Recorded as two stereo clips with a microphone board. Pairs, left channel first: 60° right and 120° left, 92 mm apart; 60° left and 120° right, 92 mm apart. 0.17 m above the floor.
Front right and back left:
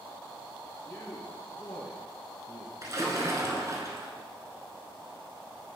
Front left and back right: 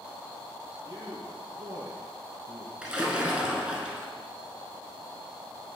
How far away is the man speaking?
About 2 m.